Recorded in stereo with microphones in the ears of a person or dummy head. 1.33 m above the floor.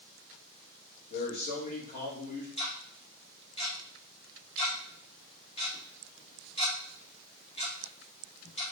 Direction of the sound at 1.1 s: 50° left (ahead or behind).